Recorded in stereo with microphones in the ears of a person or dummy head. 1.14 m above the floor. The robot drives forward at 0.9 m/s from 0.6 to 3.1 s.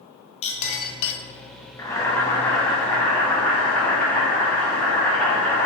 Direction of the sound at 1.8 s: 15° left (ahead or behind).